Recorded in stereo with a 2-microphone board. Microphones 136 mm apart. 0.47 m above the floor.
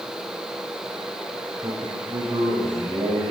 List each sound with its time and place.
1.6 s a man speaking: 30° right (ahead or behind), 2.5 m; by 3.3 s 60° right (ahead or behind), 2.5 m